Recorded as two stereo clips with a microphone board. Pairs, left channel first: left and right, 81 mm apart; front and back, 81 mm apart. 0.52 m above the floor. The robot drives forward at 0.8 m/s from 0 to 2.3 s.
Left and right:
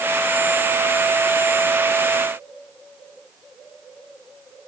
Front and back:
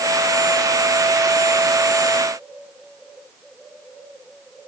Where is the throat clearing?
I don't hear throat clearing.